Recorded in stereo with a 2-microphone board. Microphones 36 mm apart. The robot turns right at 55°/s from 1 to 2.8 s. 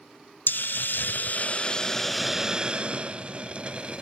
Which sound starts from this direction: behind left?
A hiss, at 0.5 s.